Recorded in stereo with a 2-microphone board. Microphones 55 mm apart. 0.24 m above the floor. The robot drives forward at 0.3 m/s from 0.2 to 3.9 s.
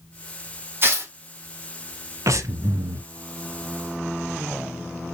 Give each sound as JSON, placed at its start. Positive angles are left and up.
{"t": 0.8, "sound": "tearing paper", "side_deg": -45, "distance_m": 1.9}
{"t": 2.3, "sound": "breathing", "side_deg": -80, "distance_m": 0.6}